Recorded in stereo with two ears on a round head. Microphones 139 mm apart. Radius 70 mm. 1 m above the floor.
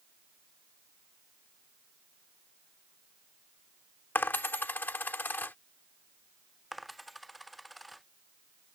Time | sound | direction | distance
4.2 | a dropped coin | 10° left (ahead or behind) | ?
6.7 | a dropped coin | centre (ahead or behind) | ?